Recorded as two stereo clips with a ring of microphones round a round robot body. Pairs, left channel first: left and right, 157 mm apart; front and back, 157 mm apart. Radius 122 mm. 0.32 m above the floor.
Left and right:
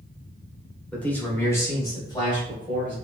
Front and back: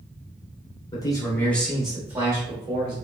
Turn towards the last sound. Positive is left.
turn(degrees=135)